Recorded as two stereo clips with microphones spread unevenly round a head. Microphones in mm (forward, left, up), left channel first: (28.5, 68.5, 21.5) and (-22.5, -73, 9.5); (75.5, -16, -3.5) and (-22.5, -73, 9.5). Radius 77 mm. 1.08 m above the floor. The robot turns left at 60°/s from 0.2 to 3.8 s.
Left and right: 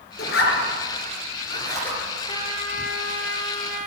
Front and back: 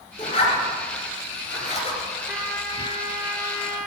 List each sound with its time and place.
0.2 s a zipper: 95° left, 3.5 m; by 2.0 s 10° right, 3.5 m
2.3 s a trumpet: 130° left, 1.6 m; by 3.9 s 40° left, 1.6 m